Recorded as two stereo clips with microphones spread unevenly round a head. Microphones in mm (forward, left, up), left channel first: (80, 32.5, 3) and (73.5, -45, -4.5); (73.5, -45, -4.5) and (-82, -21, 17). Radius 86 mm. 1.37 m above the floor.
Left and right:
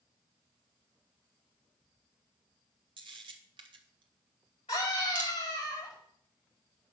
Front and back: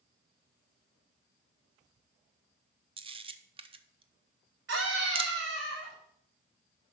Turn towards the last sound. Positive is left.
turn(degrees=140)